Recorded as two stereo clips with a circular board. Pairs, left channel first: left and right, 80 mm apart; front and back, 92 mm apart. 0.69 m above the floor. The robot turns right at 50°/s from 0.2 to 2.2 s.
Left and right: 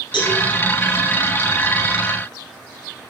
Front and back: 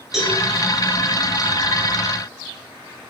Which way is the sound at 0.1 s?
90° left.